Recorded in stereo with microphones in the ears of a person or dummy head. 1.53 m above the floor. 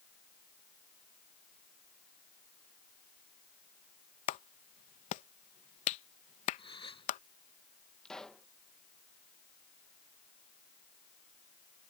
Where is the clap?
35° left (ahead or behind).